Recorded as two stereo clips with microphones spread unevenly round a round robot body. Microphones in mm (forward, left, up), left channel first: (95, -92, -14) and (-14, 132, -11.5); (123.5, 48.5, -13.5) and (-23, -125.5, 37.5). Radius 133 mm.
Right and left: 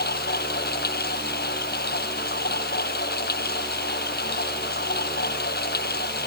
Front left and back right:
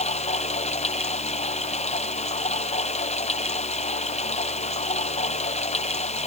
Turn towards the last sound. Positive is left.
turn(degrees=-10)